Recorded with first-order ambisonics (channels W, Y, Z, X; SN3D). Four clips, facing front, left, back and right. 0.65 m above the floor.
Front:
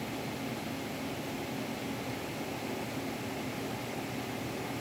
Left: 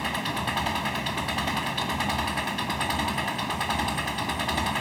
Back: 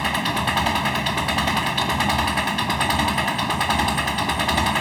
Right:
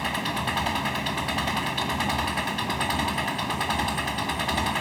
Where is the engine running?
175° right.